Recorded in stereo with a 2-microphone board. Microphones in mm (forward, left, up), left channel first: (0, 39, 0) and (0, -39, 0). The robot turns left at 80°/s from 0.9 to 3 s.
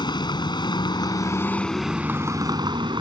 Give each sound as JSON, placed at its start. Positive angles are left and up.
{"t": 0.0, "sound": "a vehicle", "azimuth_deg": 75}